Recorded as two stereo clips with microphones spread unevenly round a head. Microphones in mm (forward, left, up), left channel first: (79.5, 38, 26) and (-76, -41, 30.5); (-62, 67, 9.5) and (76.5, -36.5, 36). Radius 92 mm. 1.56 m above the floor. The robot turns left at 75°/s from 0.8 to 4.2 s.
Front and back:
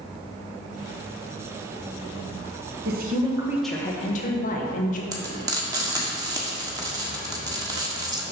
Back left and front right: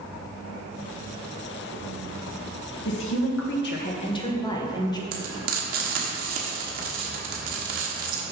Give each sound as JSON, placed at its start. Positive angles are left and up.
{"t": 2.9, "sound": "a woman speaking", "azimuth_deg": 175, "distance_m": 1.3}
{"t": 5.1, "sound": "frying", "azimuth_deg": -80, "distance_m": 1.4}